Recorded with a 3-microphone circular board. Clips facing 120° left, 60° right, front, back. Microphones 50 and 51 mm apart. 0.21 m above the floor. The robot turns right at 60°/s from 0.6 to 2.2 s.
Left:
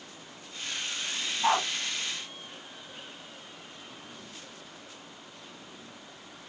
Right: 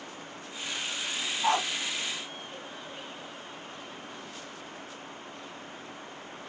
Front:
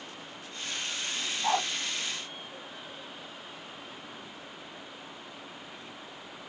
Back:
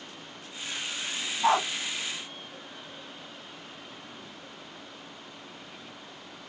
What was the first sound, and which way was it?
A dog barking, 175° right.